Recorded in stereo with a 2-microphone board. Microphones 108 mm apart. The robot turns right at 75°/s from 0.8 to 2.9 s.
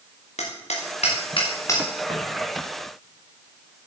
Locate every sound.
0.4 s hammering: 85° left, 4.5 m; by 1.8 s 20° left (ahead or behind), 4.5 m
2.1 s footsteps: 45° right (ahead or behind), 6 m; by 2.2 s 55° right (ahead or behind), 6 m